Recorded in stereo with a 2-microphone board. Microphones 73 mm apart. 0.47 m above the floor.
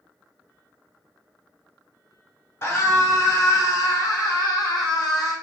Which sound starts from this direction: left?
A scream, at 2.6 s.